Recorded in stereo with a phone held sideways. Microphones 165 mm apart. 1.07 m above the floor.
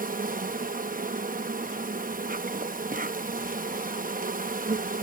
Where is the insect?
60° right (ahead or behind).